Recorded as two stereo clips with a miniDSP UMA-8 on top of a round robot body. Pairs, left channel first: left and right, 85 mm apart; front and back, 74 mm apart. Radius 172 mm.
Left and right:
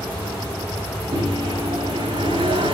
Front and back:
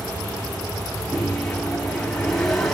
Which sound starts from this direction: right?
A microwave, at 1.1 s.